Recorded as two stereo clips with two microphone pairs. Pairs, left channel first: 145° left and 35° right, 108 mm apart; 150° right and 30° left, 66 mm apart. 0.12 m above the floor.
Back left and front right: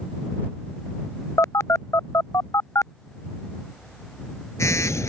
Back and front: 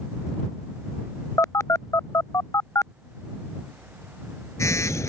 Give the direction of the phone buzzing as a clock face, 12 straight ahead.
5 o'clock.